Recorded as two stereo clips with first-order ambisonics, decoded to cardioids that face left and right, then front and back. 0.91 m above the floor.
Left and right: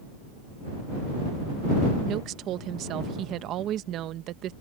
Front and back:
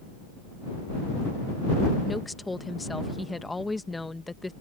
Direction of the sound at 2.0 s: 80° right.